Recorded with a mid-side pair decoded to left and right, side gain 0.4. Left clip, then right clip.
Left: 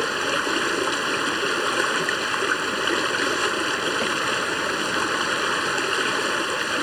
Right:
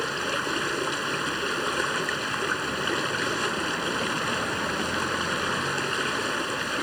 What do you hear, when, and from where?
0.0 s running water: 40° left